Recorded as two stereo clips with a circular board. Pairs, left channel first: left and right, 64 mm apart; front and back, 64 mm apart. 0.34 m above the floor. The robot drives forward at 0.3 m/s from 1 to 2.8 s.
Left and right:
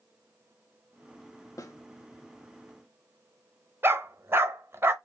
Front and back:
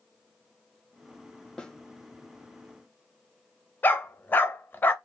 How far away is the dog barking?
About 0.5 m.